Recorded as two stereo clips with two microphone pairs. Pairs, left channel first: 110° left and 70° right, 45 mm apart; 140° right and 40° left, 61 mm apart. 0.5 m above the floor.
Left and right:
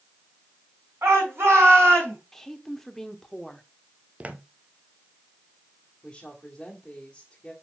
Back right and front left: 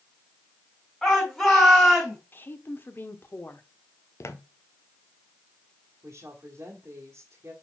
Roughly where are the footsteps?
Behind right.